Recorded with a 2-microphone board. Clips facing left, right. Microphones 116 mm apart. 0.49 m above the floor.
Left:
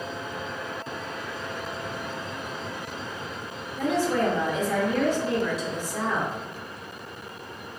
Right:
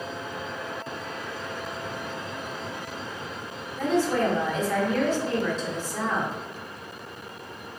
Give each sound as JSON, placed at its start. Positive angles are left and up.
{"t": 3.8, "sound": "a woman speaking", "side_deg": 15, "distance_m": 0.9}